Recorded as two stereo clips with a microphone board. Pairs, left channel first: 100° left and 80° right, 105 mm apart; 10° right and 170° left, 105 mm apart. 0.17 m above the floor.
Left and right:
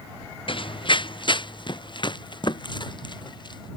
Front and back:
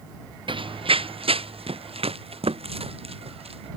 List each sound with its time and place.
0.5 s running footsteps: 135° left; by 3.7 s 145° left